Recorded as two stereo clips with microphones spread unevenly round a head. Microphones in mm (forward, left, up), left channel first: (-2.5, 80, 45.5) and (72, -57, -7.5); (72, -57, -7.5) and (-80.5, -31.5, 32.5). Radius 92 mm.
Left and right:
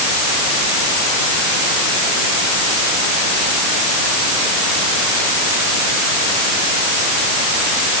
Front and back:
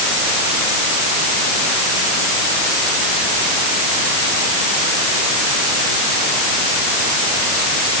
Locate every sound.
Only background noise.